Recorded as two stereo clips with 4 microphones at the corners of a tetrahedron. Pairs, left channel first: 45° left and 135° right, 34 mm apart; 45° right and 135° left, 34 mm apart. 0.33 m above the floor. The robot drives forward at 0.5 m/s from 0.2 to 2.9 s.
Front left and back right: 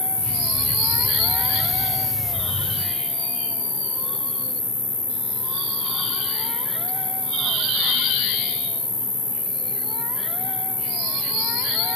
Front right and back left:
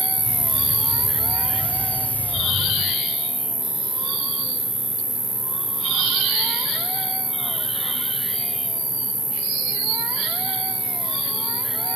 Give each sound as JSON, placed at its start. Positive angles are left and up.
{"t": 0.0, "sound": "an insect", "azimuth_deg": 115, "distance_m": 1.2}